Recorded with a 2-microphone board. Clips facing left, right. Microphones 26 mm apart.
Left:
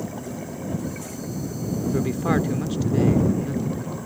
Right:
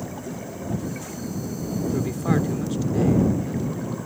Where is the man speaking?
15° left (ahead or behind).